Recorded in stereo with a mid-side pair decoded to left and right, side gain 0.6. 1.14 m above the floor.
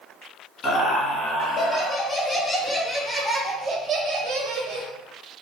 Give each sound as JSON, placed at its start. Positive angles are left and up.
{"t": 0.6, "sound": "laughter", "azimuth_deg": 35, "distance_m": 1.9}